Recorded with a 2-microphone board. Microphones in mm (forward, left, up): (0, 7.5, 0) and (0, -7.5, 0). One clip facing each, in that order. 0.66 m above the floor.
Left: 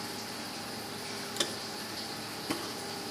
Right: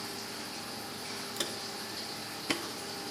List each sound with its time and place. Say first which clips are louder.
1.4 s footsteps: left 3 dB; 20° left (ahead or behind), 0.6 m; by 2.6 s 40° right (ahead or behind), 1.0 m